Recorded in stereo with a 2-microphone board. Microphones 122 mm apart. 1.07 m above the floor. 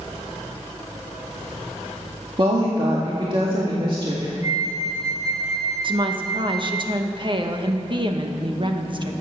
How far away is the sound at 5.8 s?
About 1.1 m.